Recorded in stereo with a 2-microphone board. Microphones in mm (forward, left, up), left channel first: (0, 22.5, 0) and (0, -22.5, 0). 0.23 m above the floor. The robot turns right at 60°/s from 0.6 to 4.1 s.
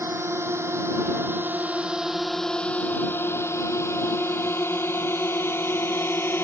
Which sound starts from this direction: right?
A drone, at 0.0 s.